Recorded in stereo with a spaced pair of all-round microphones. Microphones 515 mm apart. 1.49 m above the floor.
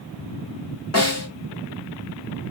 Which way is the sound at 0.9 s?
30° left (ahead or behind).